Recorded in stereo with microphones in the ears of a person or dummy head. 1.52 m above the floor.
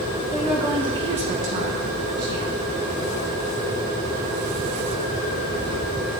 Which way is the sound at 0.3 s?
Centre (ahead or behind).